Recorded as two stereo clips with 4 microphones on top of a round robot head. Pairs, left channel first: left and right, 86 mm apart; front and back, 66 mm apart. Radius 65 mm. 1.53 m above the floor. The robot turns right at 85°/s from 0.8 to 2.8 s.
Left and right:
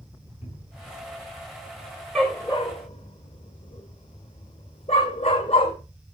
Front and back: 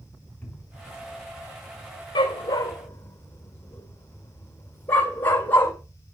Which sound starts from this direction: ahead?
A dog barking, at 2.1 s.